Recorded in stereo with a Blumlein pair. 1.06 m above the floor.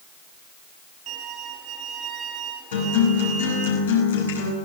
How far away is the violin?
About 2.5 m.